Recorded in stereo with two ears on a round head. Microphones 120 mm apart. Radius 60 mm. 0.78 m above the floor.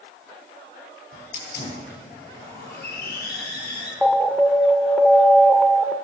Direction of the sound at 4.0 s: 5° left (ahead or behind).